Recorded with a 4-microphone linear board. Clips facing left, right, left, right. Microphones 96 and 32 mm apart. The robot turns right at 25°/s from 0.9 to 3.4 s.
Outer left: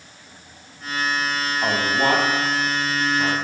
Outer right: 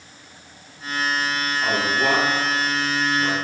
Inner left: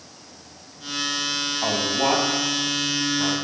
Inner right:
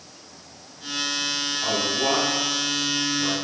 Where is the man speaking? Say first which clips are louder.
Outer left 1 dB, inner left 2 dB; 40° left (ahead or behind), 1.9 m; by 3.3 s 45° left (ahead or behind), 1.9 m.